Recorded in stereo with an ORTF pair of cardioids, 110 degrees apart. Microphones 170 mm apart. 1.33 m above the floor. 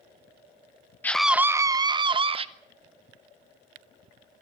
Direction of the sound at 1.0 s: 10° left.